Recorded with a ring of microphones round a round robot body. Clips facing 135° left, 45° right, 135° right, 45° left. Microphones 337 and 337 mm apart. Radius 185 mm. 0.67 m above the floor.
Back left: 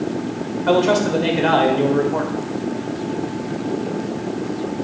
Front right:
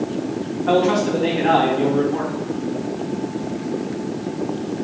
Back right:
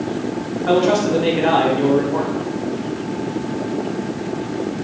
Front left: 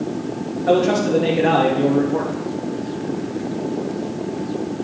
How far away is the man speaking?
About 2.5 m.